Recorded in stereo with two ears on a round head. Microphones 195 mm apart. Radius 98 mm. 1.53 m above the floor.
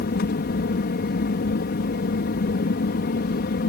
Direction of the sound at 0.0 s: 45° left (ahead or behind).